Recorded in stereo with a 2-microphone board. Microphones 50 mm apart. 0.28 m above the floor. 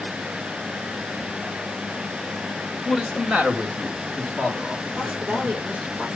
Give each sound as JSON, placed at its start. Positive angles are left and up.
{"t": 2.9, "sound": "a man speaking", "side_deg": -10, "distance_m": 1.6}
{"t": 4.9, "sound": "a woman speaking", "side_deg": -35, "distance_m": 6.0}